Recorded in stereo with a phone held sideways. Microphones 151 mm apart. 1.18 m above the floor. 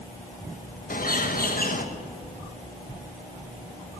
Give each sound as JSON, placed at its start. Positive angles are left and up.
{"t": 0.9, "sound": "a bird", "side_deg": 70, "distance_m": 1.7}